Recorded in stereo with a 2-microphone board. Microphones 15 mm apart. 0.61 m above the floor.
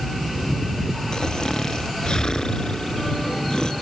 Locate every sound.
1.1 s snoring: 65° left (ahead or behind)